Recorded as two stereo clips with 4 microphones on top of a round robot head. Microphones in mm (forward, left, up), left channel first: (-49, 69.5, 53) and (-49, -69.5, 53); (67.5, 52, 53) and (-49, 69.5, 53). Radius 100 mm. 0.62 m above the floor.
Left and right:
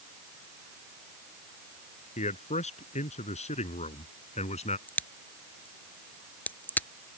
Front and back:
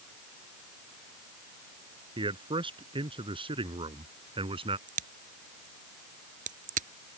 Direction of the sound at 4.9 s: 170° left.